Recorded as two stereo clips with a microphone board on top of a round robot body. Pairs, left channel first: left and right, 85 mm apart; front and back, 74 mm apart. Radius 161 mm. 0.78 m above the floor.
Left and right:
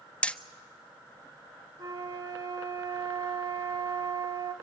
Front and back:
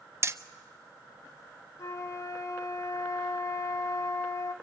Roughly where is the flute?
Ahead right.